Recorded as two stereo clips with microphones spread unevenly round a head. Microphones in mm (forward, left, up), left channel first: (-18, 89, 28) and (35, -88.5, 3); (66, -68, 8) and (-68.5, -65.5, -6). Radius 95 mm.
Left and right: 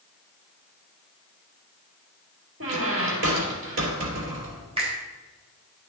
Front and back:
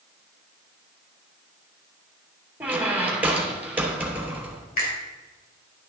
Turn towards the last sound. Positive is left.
turn(degrees=-10)